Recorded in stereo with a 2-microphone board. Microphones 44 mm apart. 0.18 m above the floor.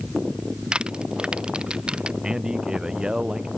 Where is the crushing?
25° right (ahead or behind).